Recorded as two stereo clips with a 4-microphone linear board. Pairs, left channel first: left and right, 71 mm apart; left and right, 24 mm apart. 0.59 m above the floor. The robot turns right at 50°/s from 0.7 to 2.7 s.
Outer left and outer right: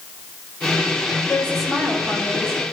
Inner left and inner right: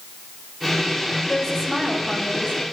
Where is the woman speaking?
160° left, 6 m; by 2.6 s 130° right, 6 m.